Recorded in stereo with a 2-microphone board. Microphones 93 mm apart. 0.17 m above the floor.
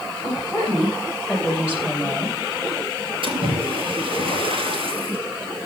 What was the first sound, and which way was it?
A woman speaking, 5° right (ahead or behind).